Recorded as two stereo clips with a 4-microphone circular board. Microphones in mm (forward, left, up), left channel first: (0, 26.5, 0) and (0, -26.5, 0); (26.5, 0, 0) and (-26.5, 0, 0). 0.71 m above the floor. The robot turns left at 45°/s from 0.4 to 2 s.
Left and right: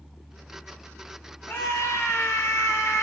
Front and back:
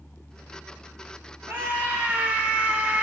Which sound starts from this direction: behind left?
A scream, at 1.5 s.